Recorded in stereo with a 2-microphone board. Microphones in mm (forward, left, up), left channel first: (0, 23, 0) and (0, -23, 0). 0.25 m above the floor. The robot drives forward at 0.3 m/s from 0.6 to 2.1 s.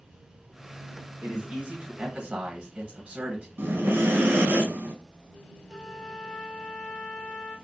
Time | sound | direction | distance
1.2 | a man speaking | 25° right (ahead or behind) | 0.9 m
3.6 | breathing | 60° right (ahead or behind) | 0.7 m
5.7 | a trumpet | 5° right (ahead or behind) | 1.4 m